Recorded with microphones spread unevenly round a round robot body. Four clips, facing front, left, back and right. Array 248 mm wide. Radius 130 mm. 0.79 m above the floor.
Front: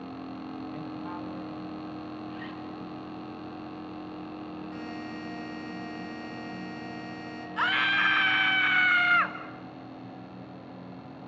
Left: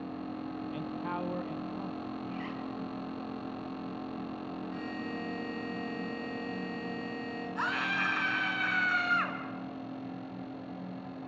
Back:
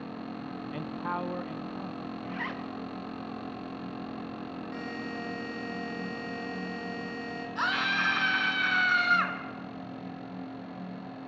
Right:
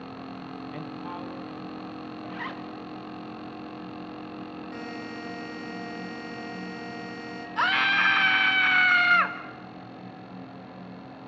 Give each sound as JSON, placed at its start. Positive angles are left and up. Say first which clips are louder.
{"t": 0.7, "sound": "a man speaking", "louder": "left 1 dB, back 3 dB", "azimuth_deg": -140, "distance_m": 0.5}
{"t": 2.2, "sound": "a zipper", "louder": "right 2 dB, back 2 dB", "azimuth_deg": -130, "distance_m": 1.3}
{"t": 4.7, "sound": "a buzzer", "louder": "right 2 dB, back 1 dB", "azimuth_deg": -100, "distance_m": 6.5}
{"t": 7.6, "sound": "a scream", "louder": "right 9 dB, front 3 dB", "azimuth_deg": -85, "distance_m": 3.0}